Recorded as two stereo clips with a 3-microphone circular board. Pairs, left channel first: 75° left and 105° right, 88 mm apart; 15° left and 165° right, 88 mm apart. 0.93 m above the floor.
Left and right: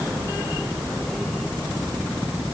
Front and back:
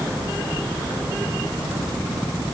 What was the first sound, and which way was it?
Only background noise.